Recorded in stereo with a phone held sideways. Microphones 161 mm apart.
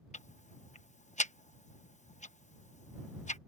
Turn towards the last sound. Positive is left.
turn(degrees=45)  # may be behind; listen again after turning